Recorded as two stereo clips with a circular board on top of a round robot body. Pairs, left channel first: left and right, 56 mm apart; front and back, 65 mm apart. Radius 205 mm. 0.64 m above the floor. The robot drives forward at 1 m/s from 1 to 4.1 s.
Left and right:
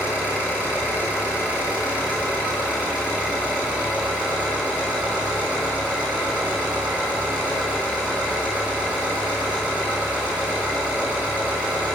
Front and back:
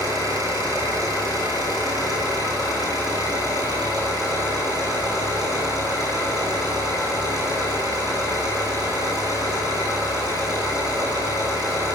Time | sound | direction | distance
0.0 | an engine running | 150° right | 10 m